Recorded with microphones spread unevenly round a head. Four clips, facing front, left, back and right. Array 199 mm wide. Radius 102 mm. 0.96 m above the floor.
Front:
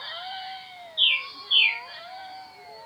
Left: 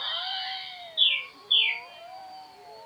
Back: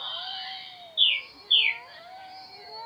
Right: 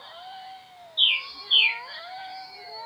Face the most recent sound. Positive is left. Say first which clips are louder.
# right 4 dB, front 2 dB
turn(degrees=-130)